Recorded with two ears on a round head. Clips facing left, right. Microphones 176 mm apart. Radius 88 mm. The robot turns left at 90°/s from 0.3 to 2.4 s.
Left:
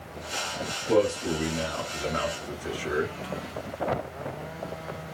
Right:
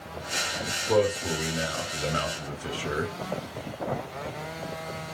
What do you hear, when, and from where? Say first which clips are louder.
0.9 s a man speaking: left 1 dB; 45° left, 1.6 m; by 3.1 s 95° right, 1.6 m